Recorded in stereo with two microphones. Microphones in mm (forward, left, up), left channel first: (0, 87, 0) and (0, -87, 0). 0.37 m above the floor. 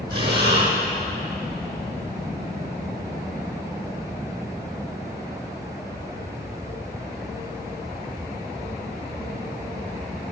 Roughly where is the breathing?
Right.